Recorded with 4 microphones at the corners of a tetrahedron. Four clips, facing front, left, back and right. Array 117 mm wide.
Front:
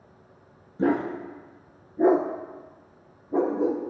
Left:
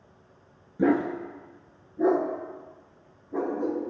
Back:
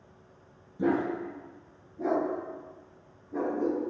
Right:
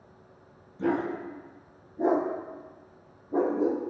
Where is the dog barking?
60° left, 1.4 m; by 3.8 s 35° right, 2.5 m.